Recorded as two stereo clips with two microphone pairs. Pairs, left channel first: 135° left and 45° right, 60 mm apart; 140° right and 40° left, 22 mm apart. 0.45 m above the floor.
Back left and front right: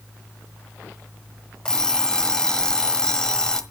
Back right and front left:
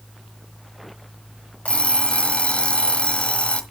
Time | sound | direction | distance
1.6 | an alarm clock | 145° right | 1.3 m